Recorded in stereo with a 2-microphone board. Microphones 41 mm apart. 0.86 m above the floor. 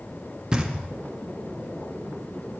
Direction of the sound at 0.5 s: 20° right (ahead or behind).